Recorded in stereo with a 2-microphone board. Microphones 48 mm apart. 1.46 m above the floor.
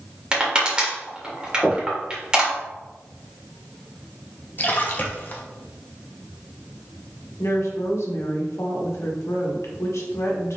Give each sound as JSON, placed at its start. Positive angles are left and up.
{"t": 0.3, "sound": "crushing", "side_deg": -20, "distance_m": 1.5}
{"t": 1.6, "sound": "knocking", "side_deg": -5, "distance_m": 1.3}
{"t": 4.6, "sound": "a splash", "side_deg": 40, "distance_m": 0.7}
{"t": 7.4, "sound": "a woman speaking", "side_deg": 70, "distance_m": 1.3}